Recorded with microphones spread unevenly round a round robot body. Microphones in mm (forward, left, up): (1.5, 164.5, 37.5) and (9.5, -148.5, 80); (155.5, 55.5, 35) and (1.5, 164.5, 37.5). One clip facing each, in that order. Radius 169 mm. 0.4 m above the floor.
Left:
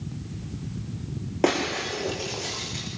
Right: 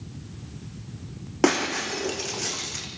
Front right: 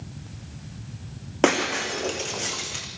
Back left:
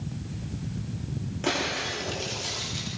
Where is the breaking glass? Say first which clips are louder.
Right 2 dB, front right 9 dB; 25° right, 5 m.